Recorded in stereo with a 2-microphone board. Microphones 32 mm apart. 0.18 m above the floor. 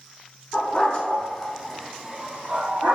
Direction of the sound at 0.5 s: 30° left (ahead or behind).